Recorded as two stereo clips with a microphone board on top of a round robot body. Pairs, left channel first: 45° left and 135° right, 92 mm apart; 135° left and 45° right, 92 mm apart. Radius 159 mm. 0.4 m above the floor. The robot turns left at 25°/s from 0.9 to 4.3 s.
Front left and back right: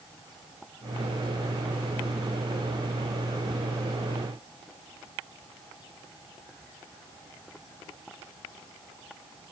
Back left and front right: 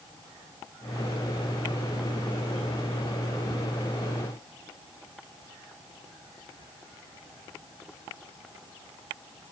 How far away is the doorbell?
No doorbell in this recording.